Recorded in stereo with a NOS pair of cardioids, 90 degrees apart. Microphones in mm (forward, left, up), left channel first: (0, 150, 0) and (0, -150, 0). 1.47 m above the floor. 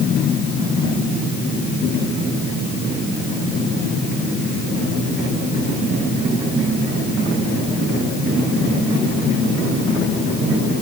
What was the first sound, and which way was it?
Only background noise.